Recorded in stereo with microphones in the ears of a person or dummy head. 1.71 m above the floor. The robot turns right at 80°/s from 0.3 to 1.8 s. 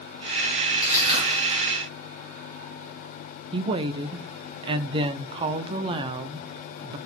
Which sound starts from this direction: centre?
Crushing, at 0.8 s.